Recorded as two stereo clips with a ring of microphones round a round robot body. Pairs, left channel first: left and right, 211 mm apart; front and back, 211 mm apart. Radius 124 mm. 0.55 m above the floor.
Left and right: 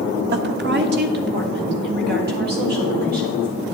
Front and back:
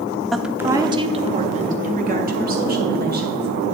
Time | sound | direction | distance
0.3 | a woman speaking | 90° right | 1.0 m